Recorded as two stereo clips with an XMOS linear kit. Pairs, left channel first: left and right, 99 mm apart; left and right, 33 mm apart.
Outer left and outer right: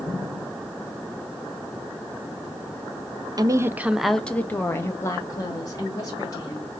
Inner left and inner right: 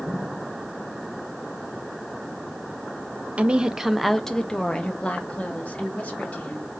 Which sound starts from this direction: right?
A woman speaking, at 3.4 s.